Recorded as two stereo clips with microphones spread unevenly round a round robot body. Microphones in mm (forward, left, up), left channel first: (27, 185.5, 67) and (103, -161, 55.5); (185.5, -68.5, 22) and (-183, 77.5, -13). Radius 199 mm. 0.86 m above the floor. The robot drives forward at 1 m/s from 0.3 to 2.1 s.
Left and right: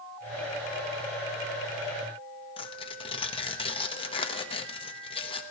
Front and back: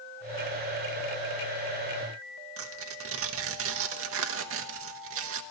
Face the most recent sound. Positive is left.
turn(degrees=170)